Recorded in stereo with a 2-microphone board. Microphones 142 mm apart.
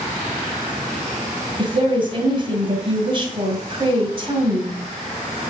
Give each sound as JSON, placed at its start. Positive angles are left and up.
{"t": 1.6, "sound": "a woman speaking", "side_deg": -35, "distance_m": 2.0}